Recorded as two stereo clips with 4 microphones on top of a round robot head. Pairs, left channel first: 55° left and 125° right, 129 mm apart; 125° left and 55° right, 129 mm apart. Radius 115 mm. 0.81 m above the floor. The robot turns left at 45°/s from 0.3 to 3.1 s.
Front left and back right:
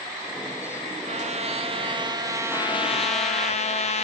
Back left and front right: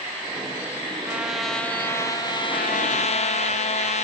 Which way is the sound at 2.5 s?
115° left.